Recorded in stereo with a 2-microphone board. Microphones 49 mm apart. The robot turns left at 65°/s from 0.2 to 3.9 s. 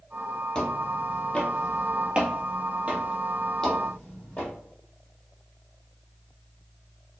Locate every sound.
0.6 s footsteps: 20° left (ahead or behind), 1.1 m; by 4.5 s 35° left (ahead or behind), 1.9 m